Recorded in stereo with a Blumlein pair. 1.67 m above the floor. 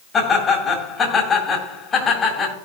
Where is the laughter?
25° left, 3.5 m.